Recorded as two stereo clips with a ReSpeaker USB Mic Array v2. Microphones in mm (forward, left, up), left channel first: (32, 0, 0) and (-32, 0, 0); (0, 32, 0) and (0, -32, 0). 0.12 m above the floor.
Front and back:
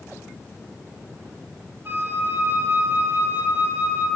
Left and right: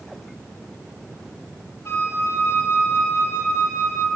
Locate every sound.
1.9 s a flute: 130° left, 1.1 m